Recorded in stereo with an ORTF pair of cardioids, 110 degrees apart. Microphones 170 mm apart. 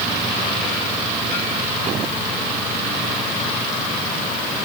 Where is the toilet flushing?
No toilet flushing in this recording.